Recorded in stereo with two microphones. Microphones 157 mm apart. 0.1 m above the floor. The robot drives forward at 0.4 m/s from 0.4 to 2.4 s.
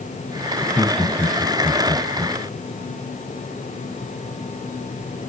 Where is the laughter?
5° left (ahead or behind), 1.5 m.